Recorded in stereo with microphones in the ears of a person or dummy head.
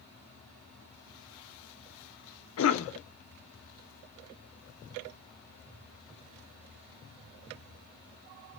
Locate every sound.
2.6 s a cough: 85° left, 0.8 m